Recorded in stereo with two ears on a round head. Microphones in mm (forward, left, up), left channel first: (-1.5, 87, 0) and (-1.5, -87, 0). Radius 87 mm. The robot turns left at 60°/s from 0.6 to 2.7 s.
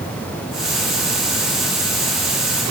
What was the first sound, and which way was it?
Only background noise.